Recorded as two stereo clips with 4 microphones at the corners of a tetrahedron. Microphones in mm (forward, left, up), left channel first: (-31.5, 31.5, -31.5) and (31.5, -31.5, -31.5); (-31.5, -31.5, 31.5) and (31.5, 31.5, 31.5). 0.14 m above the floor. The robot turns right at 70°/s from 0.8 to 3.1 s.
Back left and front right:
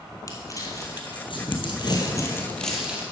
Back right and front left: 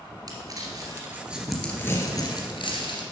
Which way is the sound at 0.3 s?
90° left.